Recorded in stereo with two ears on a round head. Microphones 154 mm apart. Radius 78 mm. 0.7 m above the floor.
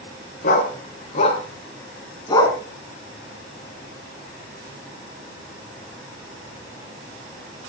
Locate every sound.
0.4 s a dog barking: 50° left (ahead or behind), 3.5 m; by 2.6 s 20° left (ahead or behind), 3 m